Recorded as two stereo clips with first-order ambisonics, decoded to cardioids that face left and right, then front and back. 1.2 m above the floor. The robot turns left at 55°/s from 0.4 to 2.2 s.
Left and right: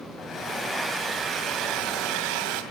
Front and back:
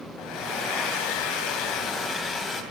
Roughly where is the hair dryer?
Ahead left.